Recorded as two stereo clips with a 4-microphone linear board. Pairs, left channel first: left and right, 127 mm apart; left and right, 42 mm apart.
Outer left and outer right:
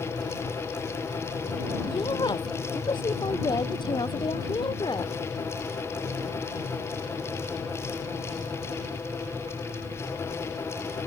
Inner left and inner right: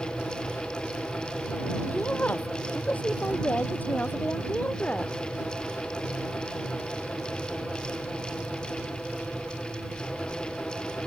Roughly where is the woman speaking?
Left.